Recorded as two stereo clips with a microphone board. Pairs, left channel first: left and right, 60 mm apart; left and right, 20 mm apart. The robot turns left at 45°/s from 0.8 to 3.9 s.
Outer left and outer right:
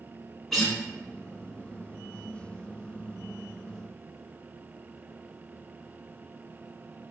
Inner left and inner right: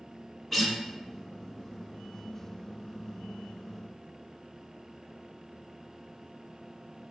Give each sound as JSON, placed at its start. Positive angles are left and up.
{"t": 0.5, "sound": "a guitar", "side_deg": 5, "distance_m": 0.9}